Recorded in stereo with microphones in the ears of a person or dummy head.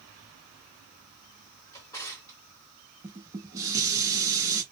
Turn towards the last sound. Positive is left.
turn(degrees=-15)  # may be behind; listen again after turning